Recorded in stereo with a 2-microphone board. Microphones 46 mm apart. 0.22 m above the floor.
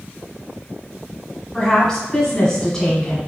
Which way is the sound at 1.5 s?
15° left (ahead or behind).